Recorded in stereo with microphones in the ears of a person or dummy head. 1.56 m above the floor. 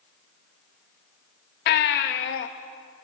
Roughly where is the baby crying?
Left.